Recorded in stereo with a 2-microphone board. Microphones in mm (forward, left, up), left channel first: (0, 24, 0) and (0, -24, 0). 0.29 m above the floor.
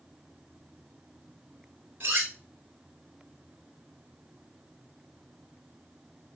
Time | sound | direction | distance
2.0 | cutlery clinking | 35° right (ahead or behind) | 2.5 m